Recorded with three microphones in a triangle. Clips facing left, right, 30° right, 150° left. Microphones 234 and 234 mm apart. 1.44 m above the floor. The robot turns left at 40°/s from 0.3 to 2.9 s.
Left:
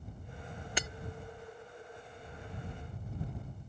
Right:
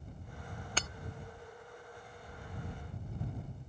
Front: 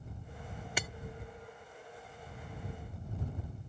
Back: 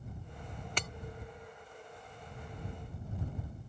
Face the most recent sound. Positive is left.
turn(degrees=-50)